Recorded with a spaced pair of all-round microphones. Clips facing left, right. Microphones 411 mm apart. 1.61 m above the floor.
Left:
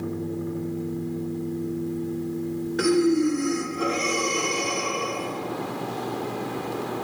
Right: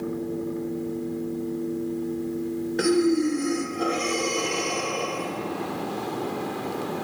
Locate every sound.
2.8 s breathing: 20° left (ahead or behind), 0.9 m